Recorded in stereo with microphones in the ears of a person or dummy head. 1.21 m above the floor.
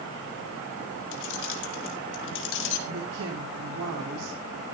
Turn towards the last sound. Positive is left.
turn(degrees=-85)